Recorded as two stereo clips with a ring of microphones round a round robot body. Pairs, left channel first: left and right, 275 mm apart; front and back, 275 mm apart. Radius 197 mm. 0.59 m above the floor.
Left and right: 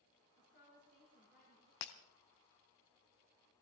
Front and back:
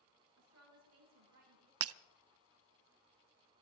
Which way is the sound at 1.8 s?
135° left.